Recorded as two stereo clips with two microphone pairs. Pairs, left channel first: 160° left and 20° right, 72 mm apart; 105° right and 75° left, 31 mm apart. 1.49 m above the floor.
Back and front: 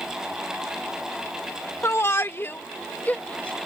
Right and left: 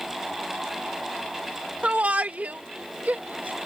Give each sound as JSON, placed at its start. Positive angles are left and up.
{"t": 1.8, "sound": "a shout", "azimuth_deg": 110}